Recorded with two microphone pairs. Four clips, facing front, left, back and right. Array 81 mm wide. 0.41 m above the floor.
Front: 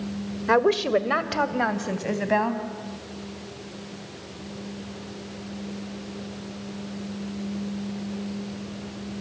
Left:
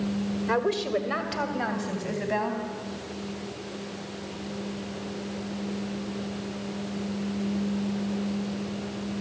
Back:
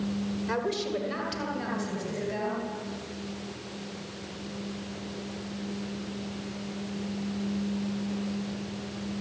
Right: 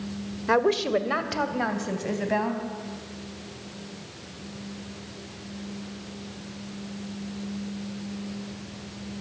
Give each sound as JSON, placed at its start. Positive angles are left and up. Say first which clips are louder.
{"t": 0.5, "sound": "a woman speaking", "louder": "right 5 dB, front 12 dB", "azimuth_deg": -15, "distance_m": 1.7}